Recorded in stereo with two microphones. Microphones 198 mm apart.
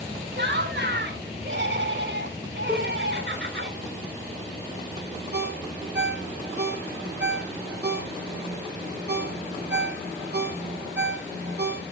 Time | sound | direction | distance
0.4 | laughter | 65° right (ahead or behind) | 2.5 m
2.7 | a cowbell | 5° right (ahead or behind) | 1.8 m
5.3 | a ringtone | 60° right (ahead or behind) | 1.7 m